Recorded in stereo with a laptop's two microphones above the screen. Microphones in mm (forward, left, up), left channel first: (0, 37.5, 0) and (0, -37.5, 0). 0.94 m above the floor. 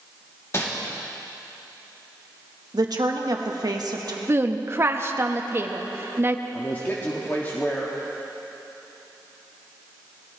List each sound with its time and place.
0.5 s crumpling: 35° left (ahead or behind), 2.5 m
2.7 s a woman speaking: 60° right (ahead or behind), 1.3 m
4.3 s a woman speaking: 35° right (ahead or behind), 1.1 m
6.5 s a man speaking: 25° left (ahead or behind), 1.5 m